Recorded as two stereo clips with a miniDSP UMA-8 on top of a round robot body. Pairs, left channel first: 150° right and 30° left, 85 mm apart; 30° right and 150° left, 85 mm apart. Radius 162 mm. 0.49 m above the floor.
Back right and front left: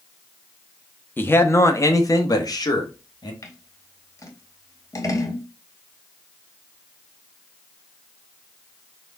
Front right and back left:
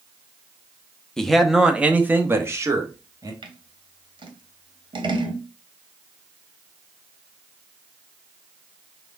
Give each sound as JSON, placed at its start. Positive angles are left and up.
{"t": 1.2, "sound": "a man speaking", "azimuth_deg": -105, "distance_m": 1.0}
{"t": 3.4, "sound": "scissors", "azimuth_deg": 160, "distance_m": 1.4}